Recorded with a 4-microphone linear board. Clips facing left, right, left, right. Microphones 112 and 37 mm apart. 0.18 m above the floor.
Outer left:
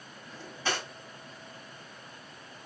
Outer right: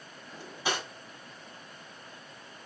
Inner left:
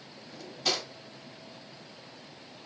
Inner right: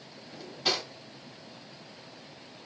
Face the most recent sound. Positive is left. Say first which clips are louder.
# outer right 1 dB, inner right 1 dB
turn(degrees=-15)  # may be behind; listen again after turning